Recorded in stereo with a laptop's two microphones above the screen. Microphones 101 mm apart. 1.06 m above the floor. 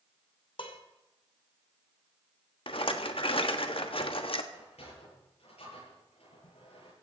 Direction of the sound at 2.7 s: 60° left (ahead or behind).